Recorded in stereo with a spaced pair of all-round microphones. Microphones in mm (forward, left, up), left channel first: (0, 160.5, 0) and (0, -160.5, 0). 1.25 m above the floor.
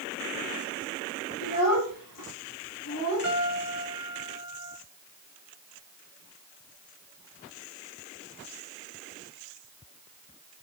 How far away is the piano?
About 4 m.